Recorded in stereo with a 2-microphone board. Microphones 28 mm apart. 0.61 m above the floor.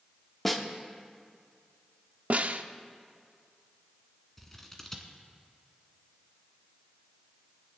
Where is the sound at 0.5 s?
5° left (ahead or behind), 0.9 m.